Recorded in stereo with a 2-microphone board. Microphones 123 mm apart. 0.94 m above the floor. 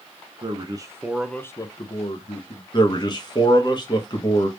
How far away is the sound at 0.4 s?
About 0.7 m.